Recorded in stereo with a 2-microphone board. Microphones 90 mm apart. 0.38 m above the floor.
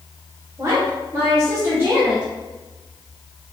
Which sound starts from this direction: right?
A woman speaking, at 0.6 s.